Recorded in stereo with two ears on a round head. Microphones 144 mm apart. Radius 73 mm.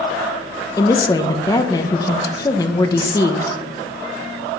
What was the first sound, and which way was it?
A woman speaking, 20° left (ahead or behind).